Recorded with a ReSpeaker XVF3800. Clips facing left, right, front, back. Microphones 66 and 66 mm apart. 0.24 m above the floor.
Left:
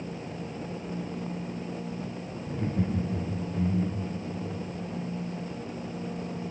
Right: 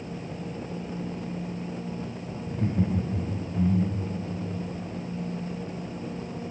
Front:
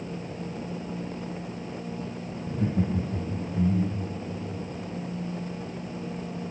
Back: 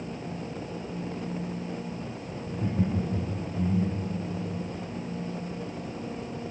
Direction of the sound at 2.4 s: 5° left.